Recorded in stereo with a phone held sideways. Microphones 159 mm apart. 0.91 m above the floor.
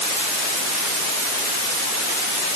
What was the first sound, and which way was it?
Only background noise.